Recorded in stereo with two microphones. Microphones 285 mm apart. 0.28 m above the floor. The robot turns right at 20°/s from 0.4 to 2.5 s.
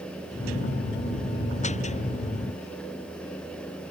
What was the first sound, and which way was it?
Only background noise.